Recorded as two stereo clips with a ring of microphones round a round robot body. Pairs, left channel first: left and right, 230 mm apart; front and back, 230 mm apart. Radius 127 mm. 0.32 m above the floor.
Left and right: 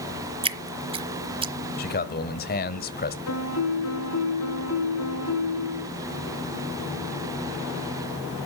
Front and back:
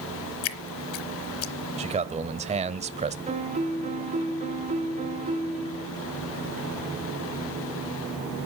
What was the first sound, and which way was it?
Dripping, 25° right.